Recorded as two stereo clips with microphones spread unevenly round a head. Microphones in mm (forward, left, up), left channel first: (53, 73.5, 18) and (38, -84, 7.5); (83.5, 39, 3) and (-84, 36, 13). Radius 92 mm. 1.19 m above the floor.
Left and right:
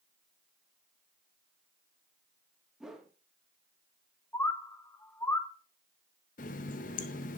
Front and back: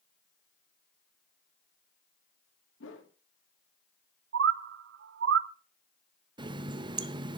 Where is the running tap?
125° left, 0.6 m.